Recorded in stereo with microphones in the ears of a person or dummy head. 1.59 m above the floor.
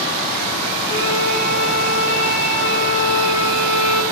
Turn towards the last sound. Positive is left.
turn(degrees=60)  # may be behind; listen again after turning